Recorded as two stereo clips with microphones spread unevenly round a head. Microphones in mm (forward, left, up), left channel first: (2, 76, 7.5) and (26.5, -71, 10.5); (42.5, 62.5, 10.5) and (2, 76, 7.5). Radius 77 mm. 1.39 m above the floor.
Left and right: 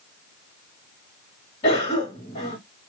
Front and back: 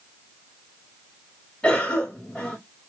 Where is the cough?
45° left, 2.0 m.